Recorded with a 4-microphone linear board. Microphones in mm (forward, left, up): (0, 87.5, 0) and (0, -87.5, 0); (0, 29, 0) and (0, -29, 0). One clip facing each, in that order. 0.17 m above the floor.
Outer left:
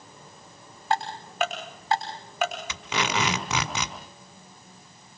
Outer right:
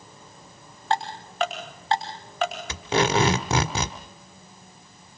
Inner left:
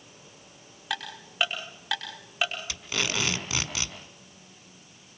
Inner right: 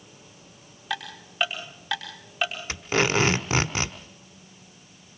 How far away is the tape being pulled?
About 1.4 m.